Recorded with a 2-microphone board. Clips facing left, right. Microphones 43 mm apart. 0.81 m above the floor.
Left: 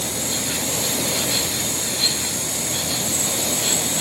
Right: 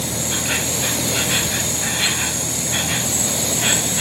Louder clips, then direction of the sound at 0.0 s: Right 2 dB; 55° right (ahead or behind).